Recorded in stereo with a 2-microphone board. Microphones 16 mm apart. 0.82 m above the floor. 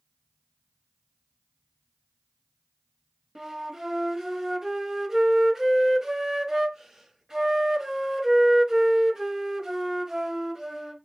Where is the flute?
25° right (ahead or behind), 0.8 m.